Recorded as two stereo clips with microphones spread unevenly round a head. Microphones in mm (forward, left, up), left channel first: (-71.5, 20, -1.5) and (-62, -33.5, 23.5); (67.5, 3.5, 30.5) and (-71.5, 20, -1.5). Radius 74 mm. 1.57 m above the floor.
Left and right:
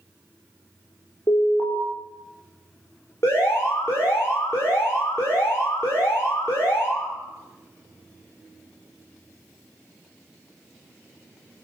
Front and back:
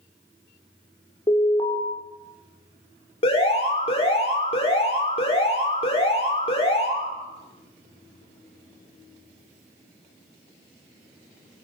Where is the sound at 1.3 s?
55° left, 6 m.